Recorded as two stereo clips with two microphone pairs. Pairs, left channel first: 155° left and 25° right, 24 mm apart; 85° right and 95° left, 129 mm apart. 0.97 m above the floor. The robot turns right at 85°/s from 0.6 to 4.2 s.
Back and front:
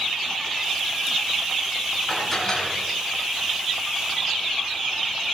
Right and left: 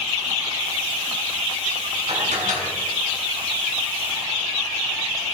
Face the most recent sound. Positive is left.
turn(degrees=-120)